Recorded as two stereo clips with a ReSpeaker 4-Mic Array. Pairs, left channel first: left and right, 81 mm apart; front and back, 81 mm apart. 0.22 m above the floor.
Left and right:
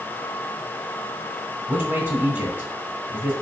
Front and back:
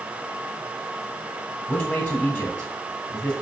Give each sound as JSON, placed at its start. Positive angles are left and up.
{"t": 1.7, "sound": "a man speaking", "azimuth_deg": -60, "distance_m": 1.7}